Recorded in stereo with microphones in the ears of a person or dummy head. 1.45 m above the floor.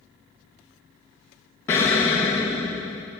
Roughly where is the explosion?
Centre.